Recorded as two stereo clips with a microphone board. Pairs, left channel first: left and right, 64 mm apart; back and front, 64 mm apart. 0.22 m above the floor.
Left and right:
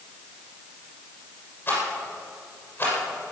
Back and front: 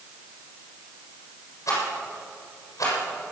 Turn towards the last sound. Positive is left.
turn(degrees=150)